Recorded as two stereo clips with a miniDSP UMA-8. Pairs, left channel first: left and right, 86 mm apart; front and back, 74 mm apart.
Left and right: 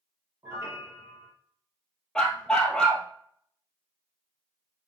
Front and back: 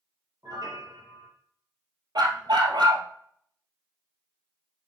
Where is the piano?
150° right, 3.5 m.